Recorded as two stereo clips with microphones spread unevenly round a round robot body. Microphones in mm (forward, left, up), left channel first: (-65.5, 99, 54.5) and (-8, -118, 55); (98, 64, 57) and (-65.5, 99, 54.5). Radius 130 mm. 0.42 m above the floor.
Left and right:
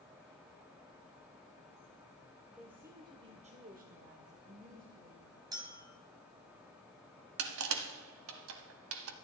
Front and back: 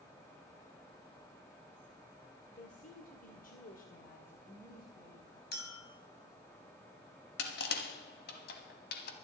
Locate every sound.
2.6 s a woman speaking: 10° left, 1.6 m; by 5.4 s 50° right, 3 m
5.5 s a clink: straight ahead, 2.5 m
7.4 s crushing: 45° right, 1.0 m